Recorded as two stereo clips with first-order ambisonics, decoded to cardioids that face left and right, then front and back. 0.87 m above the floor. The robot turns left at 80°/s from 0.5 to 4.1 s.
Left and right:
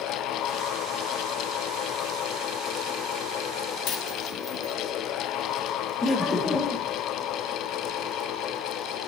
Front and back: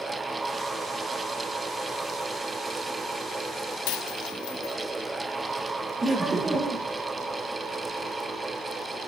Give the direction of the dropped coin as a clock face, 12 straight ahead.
11 o'clock.